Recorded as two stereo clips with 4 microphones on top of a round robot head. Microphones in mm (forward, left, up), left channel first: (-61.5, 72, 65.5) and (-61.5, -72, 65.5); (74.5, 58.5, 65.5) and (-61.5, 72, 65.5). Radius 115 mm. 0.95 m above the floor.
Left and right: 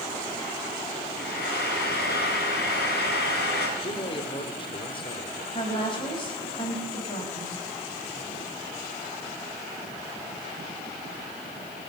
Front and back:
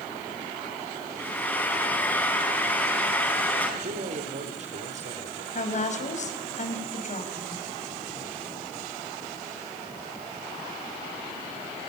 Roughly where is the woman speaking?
Ahead left.